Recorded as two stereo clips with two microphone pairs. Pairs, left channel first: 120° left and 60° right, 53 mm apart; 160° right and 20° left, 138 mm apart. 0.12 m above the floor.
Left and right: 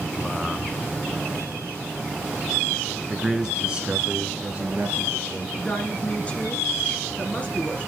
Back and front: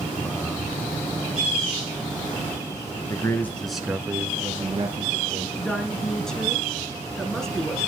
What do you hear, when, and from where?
3.1 s a man speaking: 140° right, 1.4 m; by 5.5 s 5° right, 2 m
5.6 s a woman speaking: 120° left, 1.7 m